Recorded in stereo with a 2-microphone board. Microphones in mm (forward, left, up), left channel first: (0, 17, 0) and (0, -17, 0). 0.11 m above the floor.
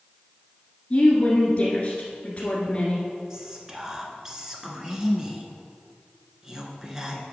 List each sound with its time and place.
0.9 s a woman speaking: 35° left (ahead or behind), 1.5 m
3.3 s whispering: 20° right (ahead or behind), 1.1 m